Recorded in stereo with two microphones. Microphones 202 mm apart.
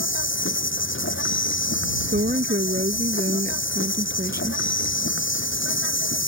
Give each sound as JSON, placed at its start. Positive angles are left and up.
{"t": 0.0, "sound": "an insect", "side_deg": 80}
{"t": 2.1, "sound": "a woman speaking", "side_deg": -55}